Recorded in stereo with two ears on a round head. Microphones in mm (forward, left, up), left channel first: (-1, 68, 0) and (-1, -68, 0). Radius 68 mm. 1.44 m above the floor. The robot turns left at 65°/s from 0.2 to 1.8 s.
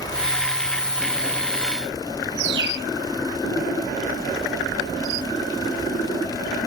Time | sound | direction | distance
2.4 | a bird | 85° right | ?